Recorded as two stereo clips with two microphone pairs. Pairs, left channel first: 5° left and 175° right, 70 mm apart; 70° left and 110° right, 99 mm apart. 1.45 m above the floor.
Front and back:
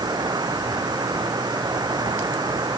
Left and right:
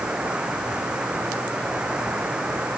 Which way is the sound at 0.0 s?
170° left.